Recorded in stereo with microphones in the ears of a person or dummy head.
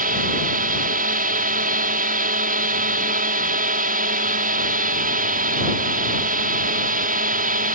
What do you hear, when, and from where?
0.0 s a drone: 45° right (ahead or behind)